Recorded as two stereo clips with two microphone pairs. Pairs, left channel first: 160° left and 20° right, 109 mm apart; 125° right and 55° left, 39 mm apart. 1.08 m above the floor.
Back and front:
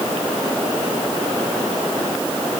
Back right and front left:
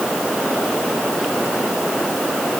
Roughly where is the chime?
No chime in this recording.